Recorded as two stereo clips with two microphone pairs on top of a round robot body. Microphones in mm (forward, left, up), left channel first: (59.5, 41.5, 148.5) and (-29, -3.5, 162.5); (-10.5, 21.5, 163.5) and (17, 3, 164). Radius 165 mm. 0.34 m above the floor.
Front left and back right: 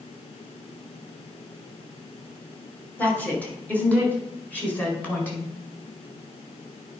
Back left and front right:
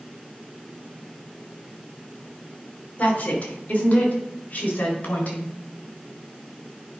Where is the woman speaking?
100° left, 3 m.